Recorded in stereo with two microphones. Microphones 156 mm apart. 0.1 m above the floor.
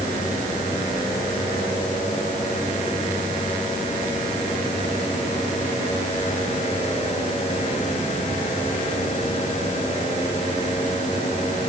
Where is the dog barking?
I don't hear a dog barking.